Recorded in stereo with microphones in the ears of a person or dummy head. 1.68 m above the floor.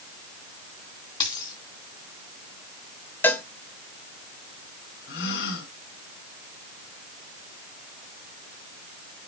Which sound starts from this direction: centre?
A cowbell, at 3.2 s.